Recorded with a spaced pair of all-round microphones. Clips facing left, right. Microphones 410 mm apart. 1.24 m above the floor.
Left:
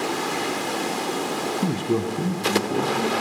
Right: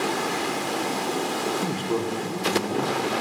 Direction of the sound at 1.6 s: 25° left (ahead or behind).